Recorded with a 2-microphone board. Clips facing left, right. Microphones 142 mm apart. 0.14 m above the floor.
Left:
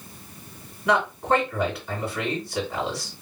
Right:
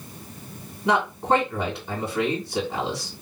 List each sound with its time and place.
0.8 s a man speaking: 25° right (ahead or behind), 1.9 m